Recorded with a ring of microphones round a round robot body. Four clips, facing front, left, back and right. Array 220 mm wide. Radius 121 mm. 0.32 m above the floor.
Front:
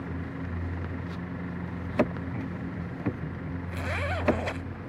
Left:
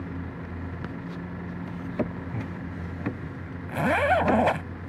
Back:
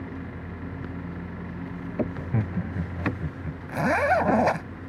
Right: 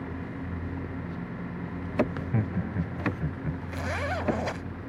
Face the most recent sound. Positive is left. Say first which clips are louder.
# left 12 dB, back 13 dB
turn(degrees=140)